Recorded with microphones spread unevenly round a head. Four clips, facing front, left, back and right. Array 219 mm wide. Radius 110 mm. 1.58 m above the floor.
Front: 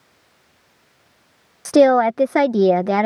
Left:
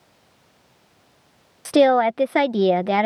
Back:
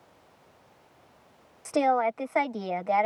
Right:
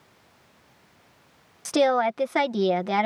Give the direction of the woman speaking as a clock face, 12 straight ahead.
11 o'clock.